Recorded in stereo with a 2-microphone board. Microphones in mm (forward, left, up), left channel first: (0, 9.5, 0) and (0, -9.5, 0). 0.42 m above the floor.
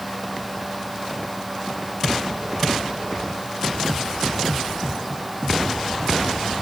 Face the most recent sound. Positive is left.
No sound to turn to.